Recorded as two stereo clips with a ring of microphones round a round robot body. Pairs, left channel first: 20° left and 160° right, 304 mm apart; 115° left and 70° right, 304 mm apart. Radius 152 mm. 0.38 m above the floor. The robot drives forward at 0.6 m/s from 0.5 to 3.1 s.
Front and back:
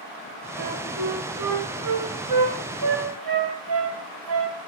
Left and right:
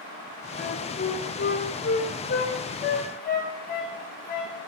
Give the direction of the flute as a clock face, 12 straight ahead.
6 o'clock.